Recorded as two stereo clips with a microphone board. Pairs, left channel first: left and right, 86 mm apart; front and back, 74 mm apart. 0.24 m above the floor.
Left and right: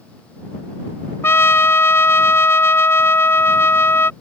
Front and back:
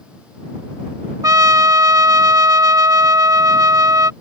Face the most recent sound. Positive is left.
turn(degrees=150)